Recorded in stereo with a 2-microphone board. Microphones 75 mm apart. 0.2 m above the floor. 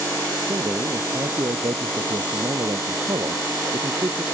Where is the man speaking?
65° right (ahead or behind).